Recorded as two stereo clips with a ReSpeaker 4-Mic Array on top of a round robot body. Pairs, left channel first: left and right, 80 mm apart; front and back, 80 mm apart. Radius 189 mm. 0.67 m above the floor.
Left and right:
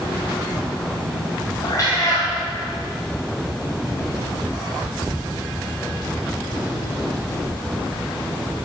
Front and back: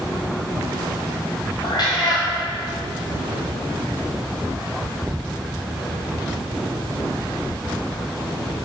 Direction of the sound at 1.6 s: 35° left.